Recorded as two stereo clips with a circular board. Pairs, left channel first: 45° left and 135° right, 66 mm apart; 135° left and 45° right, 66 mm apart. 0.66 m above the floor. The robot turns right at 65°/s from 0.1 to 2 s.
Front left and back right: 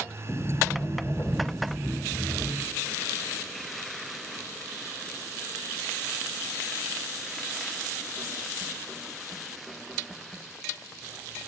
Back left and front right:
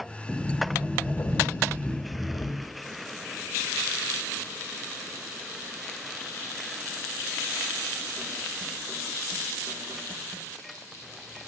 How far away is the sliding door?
About 3 m.